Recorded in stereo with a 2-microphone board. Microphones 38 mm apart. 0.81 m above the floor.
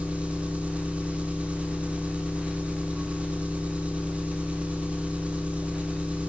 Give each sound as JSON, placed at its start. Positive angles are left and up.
{"t": 0.0, "sound": "an engine running", "side_deg": -35, "distance_m": 1.9}